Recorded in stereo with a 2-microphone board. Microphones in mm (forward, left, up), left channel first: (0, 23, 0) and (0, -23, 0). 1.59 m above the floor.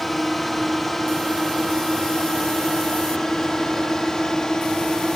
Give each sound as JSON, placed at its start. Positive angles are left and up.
{"t": 0.0, "sound": "a drone", "side_deg": 5}